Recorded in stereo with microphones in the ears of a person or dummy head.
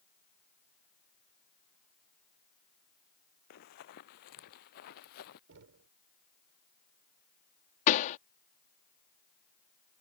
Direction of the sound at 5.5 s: 65° right (ahead or behind).